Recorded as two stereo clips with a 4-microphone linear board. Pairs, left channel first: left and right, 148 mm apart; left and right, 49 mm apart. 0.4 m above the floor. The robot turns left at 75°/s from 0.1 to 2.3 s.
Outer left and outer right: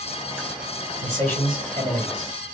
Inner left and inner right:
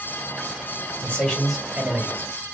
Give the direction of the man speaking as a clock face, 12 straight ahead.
11 o'clock.